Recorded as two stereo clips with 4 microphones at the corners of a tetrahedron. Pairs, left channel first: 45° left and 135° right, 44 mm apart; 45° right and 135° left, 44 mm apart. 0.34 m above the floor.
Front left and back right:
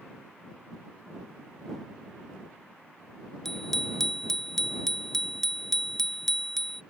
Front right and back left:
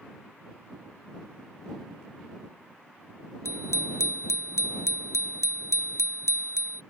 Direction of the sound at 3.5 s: 40° right.